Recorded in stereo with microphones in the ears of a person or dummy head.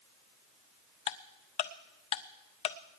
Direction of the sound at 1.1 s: 30° left (ahead or behind).